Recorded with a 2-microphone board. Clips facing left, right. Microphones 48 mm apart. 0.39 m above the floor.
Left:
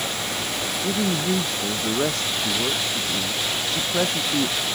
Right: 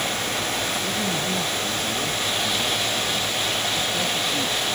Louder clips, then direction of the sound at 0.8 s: Left 2 dB; 60° left (ahead or behind).